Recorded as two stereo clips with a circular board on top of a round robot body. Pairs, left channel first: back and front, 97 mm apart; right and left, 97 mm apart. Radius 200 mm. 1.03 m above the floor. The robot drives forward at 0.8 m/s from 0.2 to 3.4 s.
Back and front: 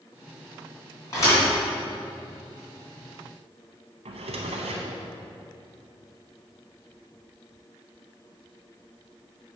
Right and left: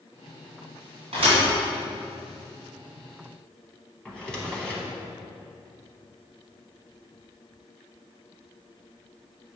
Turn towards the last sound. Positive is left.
turn(degrees=-5)